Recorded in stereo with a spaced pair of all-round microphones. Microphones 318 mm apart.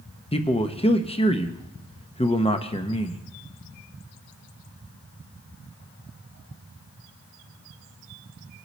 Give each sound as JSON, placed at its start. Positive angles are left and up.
{"t": 0.3, "sound": "a man speaking", "side_deg": 15, "distance_m": 0.9}